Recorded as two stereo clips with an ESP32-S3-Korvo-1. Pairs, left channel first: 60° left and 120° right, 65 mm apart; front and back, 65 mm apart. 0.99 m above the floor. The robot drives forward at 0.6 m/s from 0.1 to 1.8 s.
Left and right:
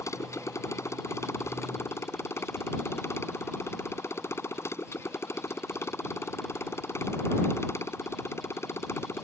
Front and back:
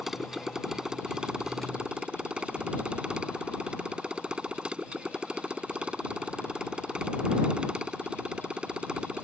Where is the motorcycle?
95° left; by 9.2 s 105° left.